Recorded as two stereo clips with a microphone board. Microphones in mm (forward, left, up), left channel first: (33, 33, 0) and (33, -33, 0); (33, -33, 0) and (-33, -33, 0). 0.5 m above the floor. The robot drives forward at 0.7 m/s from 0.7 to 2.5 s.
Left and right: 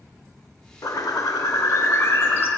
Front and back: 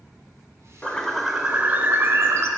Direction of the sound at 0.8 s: 70° left.